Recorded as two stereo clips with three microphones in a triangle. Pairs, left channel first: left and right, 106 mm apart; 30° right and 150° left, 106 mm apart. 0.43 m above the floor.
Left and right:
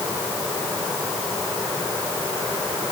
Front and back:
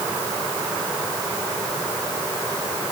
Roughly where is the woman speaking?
I don't hear a woman speaking.